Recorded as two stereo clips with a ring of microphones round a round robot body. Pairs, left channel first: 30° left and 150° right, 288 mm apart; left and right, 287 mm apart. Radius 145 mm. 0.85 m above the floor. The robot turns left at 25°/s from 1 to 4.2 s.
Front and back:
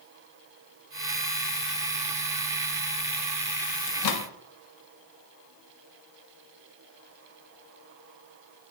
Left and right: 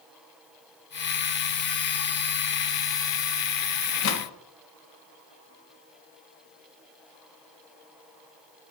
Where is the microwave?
50° left, 1.1 m; by 4.3 s 45° left, 1.1 m.